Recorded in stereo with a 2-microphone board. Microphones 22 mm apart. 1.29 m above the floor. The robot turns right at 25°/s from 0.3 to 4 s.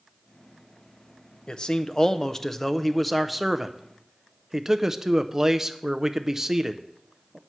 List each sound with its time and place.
1.5 s a man speaking: 135° left, 0.5 m; by 7.4 s 160° right, 0.5 m